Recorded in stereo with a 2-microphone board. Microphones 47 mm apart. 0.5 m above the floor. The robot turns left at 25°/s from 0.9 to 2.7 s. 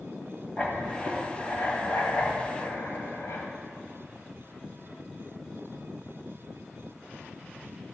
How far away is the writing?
About 1.5 m.